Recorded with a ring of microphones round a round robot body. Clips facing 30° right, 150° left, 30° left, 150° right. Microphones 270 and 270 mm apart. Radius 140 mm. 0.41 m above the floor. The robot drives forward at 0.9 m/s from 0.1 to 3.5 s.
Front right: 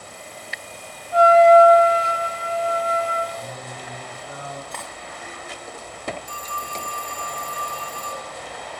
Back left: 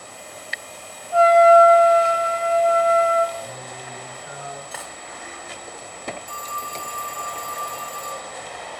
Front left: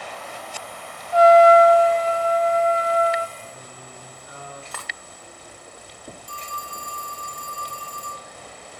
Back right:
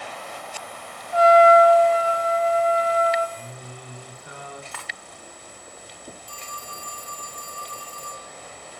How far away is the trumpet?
About 0.7 m.